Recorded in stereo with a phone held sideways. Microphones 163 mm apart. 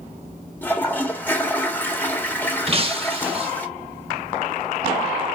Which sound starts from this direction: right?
Breaking glass, at 2.7 s.